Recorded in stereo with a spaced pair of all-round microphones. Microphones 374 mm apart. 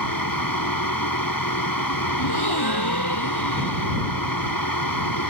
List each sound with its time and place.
0.0 s a fan: 60° left (ahead or behind)
2.2 s a gasp: 80° left